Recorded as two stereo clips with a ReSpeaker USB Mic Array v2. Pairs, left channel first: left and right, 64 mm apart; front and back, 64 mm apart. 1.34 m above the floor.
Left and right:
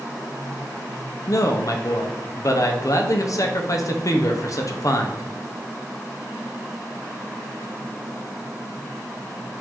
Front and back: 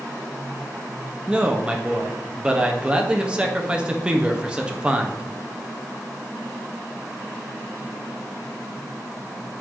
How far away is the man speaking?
About 0.7 m.